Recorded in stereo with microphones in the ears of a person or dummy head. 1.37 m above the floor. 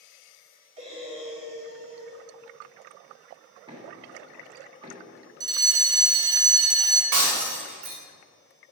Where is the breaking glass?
50° right (ahead or behind), 1.9 m.